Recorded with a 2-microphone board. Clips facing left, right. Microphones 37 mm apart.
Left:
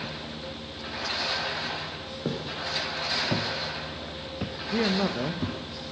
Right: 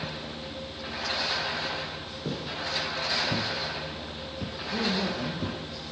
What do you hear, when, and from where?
2.2 s footsteps: 30° left (ahead or behind), 2.5 m; by 5.6 s 10° left (ahead or behind), 1.4 m
4.7 s a man speaking: 40° left (ahead or behind), 0.9 m